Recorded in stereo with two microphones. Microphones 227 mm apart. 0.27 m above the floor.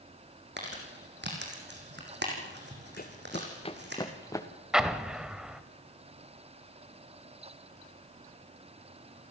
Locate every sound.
0.6 s crumpling: 50° right (ahead or behind), 5 m
3.0 s running footsteps: 40° left (ahead or behind), 1.3 m; by 4.5 s 15° left (ahead or behind), 2 m
4.7 s an explosion: 5° right (ahead or behind), 1.0 m